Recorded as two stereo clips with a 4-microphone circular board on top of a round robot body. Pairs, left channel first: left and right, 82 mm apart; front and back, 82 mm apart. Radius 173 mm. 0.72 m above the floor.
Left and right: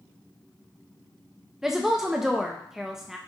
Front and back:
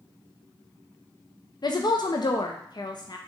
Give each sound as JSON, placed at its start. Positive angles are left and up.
{"t": 1.6, "sound": "a woman speaking", "azimuth_deg": -5, "distance_m": 0.5}